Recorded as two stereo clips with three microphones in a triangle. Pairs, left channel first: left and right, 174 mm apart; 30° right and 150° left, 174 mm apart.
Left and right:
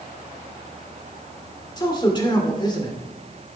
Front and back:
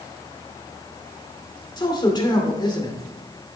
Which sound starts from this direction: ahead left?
A man speaking, at 1.8 s.